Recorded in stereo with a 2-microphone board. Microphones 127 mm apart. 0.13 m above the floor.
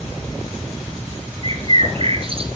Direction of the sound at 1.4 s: 50° right (ahead or behind).